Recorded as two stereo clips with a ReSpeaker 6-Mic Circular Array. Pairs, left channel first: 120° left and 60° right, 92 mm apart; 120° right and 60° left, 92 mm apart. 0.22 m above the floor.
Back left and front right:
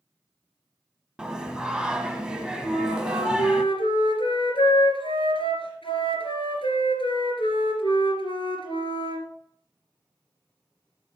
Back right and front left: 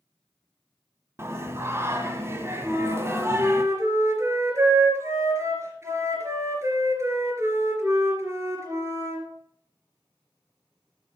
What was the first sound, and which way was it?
Singing, 15° left.